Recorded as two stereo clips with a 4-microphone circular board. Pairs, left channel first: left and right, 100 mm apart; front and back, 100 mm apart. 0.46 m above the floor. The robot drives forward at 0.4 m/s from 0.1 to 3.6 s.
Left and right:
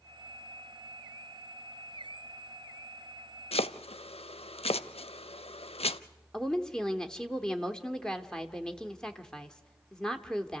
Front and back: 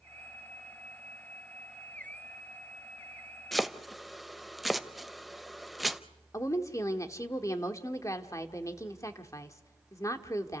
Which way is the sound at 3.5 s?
90° left.